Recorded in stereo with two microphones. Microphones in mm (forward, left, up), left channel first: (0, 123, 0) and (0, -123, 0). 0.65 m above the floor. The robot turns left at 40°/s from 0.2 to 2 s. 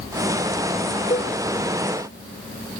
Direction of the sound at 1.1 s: 30° left (ahead or behind).